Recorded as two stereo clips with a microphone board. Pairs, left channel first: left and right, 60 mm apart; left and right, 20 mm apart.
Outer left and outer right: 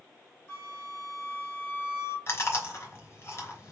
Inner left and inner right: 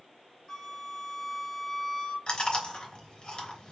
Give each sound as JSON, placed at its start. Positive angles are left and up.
{"t": 0.5, "sound": "a flute", "side_deg": 30, "distance_m": 2.5}
{"t": 2.3, "sound": "chewing", "side_deg": 45, "distance_m": 3.0}